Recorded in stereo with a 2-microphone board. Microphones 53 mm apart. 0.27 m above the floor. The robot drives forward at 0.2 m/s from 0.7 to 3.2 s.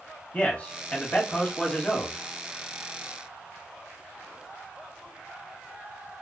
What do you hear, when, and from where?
0.3 s a man speaking: 30° left (ahead or behind), 1.2 m; by 2.2 s 25° left (ahead or behind), 1.3 m